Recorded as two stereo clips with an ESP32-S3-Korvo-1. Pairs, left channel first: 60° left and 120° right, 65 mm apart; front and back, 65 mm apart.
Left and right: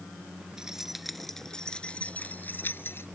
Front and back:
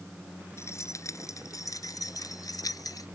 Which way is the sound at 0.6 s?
40° right.